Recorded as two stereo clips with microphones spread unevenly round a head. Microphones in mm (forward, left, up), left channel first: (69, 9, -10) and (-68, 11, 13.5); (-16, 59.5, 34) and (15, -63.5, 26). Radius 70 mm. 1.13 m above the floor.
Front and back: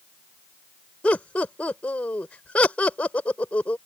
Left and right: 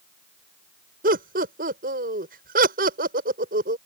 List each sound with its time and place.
1.0 s laughter: 85° right